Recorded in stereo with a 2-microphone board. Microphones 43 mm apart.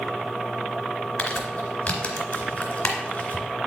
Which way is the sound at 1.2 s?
35° left (ahead or behind).